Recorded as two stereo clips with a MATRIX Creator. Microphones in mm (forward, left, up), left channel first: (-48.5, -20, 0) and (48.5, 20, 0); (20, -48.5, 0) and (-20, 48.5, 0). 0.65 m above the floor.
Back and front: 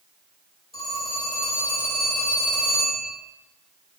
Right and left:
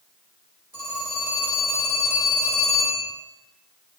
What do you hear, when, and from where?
0.7 s a phone ringing: straight behind, 2.0 m